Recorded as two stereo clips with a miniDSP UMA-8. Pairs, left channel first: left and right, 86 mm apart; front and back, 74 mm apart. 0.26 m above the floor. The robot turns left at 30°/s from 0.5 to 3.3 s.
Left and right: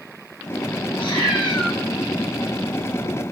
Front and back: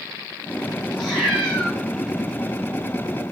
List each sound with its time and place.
0.9 s a cat meowing: 90° left, 3 m; by 1.8 s 65° left, 3 m